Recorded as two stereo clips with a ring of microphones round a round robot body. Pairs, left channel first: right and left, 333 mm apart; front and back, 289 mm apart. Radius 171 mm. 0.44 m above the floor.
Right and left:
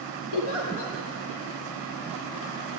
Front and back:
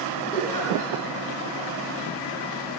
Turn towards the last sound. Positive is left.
turn(degrees=-80)